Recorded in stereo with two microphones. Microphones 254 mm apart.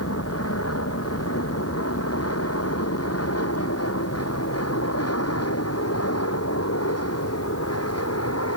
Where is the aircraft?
70° left (ahead or behind); by 8.6 s 75° left (ahead or behind).